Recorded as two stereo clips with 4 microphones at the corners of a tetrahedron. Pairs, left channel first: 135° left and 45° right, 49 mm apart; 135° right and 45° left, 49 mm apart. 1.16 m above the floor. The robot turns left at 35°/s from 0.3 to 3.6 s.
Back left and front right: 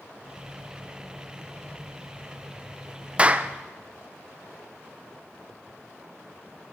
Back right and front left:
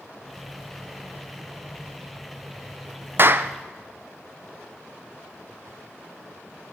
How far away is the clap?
About 0.5 m.